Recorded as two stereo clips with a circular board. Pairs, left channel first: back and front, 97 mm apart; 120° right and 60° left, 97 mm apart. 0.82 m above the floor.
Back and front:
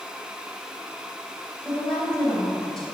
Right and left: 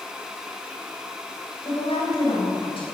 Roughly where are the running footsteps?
No running footsteps in this recording.